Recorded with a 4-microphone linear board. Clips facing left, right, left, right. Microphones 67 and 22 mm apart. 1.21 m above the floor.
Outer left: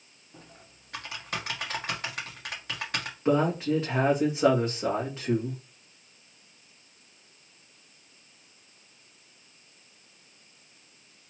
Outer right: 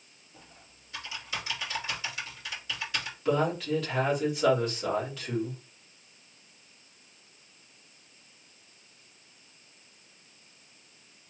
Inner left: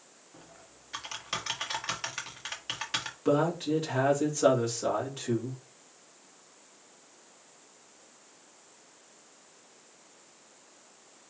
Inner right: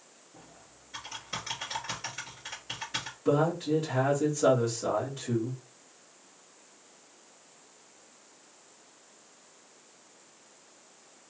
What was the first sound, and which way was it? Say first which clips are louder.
Typing on a keyboard: outer left 4 dB, inner left 1 dB; 50° left (ahead or behind).